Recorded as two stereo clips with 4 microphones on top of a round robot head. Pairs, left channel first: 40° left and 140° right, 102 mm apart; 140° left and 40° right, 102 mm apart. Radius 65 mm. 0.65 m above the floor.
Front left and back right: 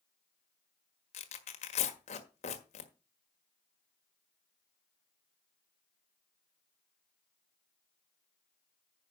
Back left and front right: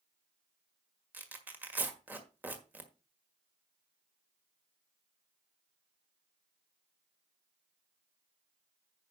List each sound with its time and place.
1.1 s tearing paper: 35° left, 1.6 m